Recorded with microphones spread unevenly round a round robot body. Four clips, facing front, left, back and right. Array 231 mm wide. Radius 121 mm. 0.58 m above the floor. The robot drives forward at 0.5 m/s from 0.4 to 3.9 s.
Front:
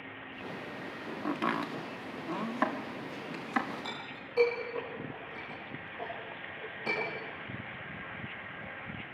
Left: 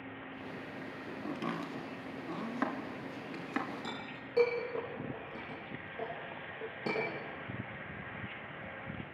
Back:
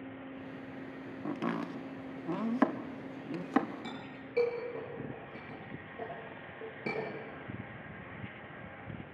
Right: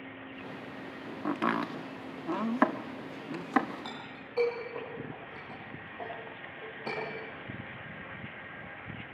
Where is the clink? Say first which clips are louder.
Even, front 1 dB; 135° left, 7 m.